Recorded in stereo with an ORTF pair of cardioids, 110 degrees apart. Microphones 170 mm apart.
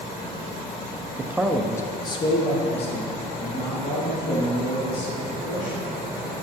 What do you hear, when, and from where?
1.2 s a man speaking: 25° right, 0.5 m; by 5.8 s 50° left, 4 m